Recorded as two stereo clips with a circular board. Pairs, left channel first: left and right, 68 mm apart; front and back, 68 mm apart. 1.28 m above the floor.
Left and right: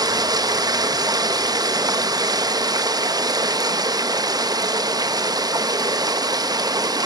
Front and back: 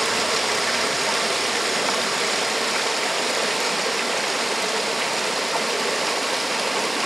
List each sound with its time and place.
0.0 s running water: 90° right, 1.0 m